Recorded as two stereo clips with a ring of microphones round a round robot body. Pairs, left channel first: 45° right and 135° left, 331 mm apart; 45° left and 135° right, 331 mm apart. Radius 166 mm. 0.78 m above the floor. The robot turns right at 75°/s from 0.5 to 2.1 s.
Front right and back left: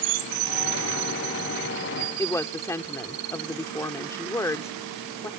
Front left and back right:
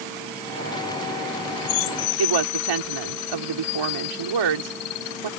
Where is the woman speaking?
125° right.